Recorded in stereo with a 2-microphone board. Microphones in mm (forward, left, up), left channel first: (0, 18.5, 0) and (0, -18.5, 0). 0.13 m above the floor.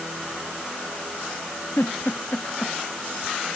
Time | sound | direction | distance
1.8 | a giggle | 75° left (ahead or behind) | ?